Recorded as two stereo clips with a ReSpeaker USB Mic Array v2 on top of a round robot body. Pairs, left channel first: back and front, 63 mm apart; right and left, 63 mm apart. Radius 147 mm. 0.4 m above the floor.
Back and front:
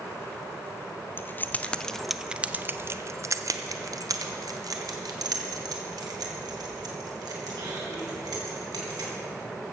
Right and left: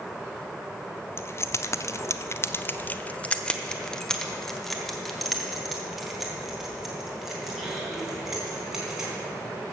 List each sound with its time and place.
1.2 s keys jangling: 130° right, 0.8 m; by 9.1 s 10° left, 3.5 m